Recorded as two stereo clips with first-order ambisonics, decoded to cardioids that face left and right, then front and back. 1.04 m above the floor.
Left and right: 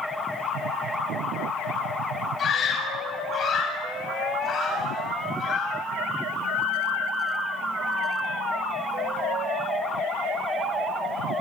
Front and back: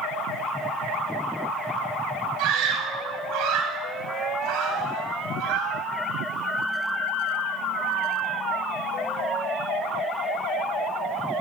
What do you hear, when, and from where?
2.4 s a scream: 155° left, 8 m